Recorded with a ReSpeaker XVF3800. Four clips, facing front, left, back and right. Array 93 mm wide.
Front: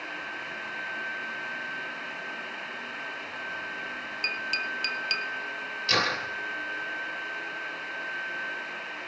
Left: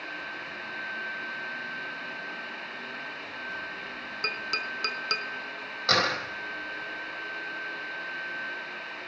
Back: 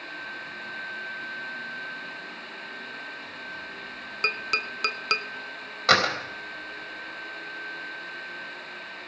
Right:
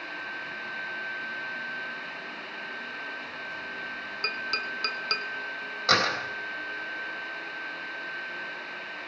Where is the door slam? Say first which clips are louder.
Right 1 dB, back 6 dB; 175° right, 4 m.